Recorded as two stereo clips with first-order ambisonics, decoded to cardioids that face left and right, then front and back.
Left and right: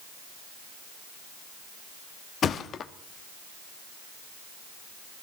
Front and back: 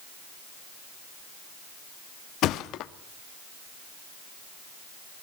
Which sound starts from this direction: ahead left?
A thud, at 2.4 s.